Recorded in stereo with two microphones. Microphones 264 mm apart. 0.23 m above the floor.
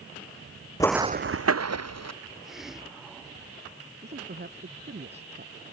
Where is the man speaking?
40° right (ahead or behind).